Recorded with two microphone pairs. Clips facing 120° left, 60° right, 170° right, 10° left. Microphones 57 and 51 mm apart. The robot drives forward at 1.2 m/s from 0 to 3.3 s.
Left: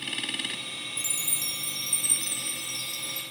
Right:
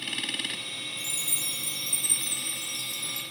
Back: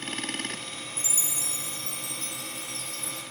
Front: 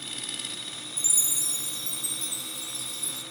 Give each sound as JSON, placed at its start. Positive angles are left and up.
{"t": 1.0, "sound": "a chime", "azimuth_deg": 135, "distance_m": 1.5}